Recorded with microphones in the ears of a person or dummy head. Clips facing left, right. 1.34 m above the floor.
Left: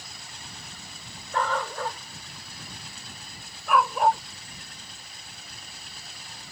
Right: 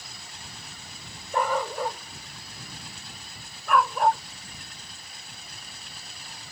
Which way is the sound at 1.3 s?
15° right (ahead or behind).